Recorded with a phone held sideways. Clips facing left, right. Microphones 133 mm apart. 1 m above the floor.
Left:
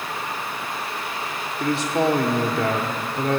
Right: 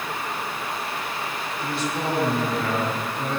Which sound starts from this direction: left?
A man speaking, at 1.6 s.